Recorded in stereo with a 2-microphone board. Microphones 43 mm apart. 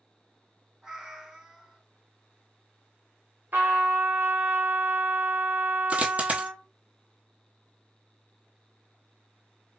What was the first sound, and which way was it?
A cat meowing, 15° right (ahead or behind).